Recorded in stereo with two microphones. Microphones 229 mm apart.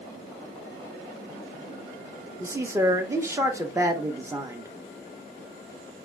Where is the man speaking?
10° right (ahead or behind), 0.9 m.